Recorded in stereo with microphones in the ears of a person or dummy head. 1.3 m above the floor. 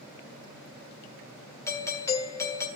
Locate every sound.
1.7 s a doorbell: 15° left (ahead or behind), 1.3 m